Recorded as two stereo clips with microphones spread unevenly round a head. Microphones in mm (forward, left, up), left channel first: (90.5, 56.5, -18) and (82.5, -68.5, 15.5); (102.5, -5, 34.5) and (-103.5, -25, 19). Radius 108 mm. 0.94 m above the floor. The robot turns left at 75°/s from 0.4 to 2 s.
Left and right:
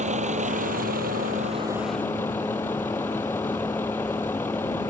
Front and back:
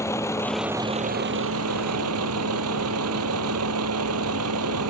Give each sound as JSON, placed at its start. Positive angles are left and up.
{"t": 0.0, "sound": "a vehicle", "azimuth_deg": -70}